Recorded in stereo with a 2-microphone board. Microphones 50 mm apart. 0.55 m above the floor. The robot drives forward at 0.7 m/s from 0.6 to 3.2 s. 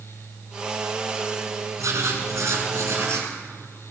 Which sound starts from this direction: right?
Writing, at 1.8 s.